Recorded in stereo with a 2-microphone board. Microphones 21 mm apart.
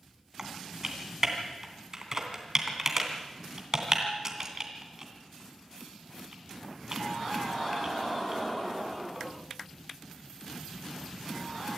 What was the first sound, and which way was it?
Typing on a keyboard, 25° right (ahead or behind).